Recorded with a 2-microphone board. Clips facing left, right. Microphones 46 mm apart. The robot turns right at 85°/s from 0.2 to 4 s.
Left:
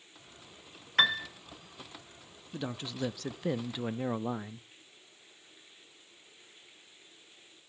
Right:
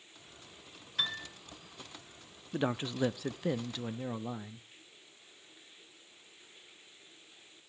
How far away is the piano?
About 0.9 m.